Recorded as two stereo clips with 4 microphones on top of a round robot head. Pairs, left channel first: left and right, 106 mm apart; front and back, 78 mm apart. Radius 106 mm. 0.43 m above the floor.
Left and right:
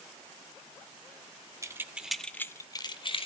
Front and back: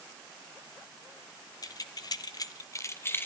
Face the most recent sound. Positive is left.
turn(degrees=60)